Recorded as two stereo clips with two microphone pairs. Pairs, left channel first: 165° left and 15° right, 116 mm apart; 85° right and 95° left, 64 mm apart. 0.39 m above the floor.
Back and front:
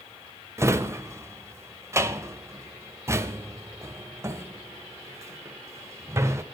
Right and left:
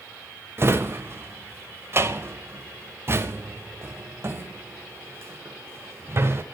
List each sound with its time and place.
0.6 s a drawer: 45° left, 0.6 m